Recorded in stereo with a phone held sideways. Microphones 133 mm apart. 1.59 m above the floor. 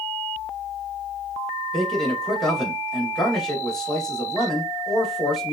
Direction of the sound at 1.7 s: Centre (ahead or behind).